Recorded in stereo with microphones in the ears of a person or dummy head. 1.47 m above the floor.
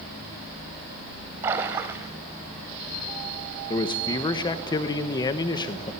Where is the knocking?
No knocking in this recording.